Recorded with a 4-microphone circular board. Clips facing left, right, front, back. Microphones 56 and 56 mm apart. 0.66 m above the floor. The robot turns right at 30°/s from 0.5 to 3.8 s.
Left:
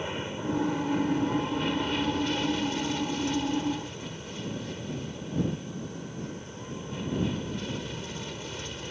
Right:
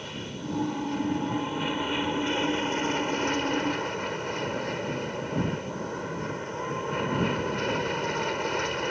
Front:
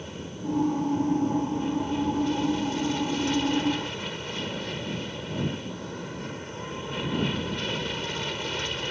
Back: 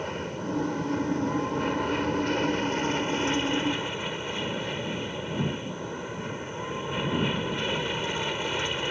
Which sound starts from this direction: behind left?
An aircraft, at 0.0 s.